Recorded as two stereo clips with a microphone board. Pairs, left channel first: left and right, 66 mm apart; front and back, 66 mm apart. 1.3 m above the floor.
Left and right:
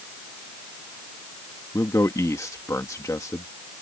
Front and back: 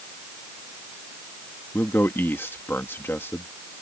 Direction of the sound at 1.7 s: 55° left.